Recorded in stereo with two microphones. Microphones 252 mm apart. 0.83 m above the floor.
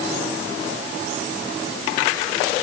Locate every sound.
Only background noise.